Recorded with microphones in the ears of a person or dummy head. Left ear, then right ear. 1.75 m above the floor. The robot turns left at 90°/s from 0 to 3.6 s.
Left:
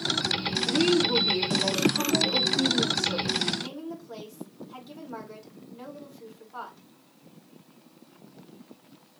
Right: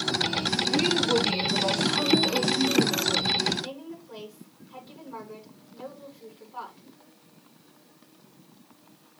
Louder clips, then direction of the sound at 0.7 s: Left 2 dB; 5° right.